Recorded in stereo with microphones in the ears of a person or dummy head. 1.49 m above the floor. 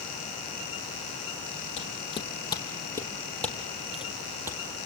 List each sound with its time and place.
1.8 s footsteps: 30° left (ahead or behind), 3.5 m; by 4.9 s 20° right (ahead or behind), 3 m